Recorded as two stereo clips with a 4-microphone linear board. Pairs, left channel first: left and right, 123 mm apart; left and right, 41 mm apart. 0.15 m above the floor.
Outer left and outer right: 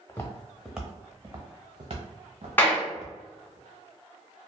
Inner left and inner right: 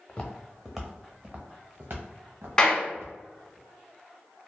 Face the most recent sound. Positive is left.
turn(degrees=15)  # may be behind; listen again after turning